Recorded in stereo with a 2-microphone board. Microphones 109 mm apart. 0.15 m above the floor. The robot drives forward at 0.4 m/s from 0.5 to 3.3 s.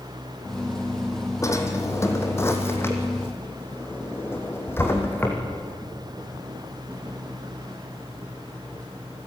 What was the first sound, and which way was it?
A drawer, 30° left (ahead or behind).